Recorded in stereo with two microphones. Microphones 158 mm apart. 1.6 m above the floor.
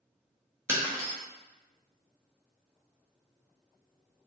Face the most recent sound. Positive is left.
turn(degrees=-15)  # may be behind; listen again after turning